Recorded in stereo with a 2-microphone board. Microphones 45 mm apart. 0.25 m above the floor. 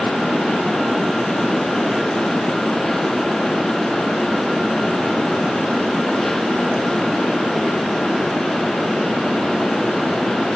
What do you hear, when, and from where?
Only background noise.